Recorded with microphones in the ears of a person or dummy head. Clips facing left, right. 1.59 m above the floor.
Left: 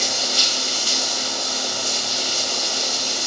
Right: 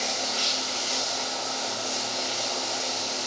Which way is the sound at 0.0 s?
55° left (ahead or behind).